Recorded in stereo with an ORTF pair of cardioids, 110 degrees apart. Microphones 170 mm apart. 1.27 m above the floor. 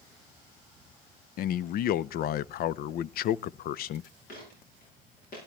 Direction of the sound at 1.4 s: 60° left.